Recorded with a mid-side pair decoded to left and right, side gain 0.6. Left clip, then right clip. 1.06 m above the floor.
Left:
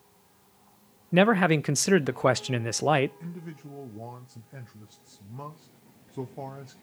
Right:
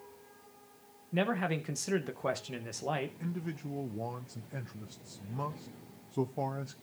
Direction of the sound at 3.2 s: 15° right.